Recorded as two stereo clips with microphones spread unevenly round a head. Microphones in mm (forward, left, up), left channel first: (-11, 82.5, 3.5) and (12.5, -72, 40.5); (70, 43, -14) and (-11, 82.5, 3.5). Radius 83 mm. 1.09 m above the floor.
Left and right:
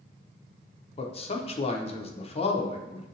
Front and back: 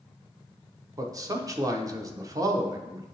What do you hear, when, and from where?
1.0 s a man speaking: 105° left, 0.6 m